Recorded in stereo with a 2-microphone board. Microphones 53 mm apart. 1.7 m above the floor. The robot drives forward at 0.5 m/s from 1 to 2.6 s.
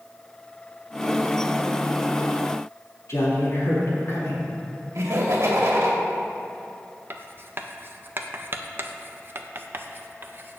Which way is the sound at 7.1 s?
45° right (ahead or behind).